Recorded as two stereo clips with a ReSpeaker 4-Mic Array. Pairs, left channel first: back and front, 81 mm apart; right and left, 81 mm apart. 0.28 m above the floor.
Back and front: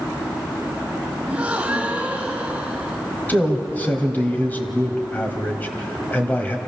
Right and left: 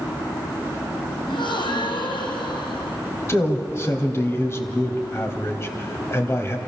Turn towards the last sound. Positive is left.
turn(degrees=-125)